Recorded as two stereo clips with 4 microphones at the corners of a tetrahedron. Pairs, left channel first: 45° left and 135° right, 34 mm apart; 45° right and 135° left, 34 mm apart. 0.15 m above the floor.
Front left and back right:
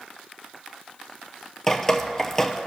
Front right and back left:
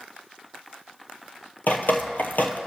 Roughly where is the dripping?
Ahead right.